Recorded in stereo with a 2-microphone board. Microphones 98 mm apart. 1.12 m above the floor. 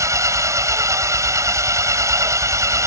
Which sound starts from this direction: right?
An engine running, at 0.0 s.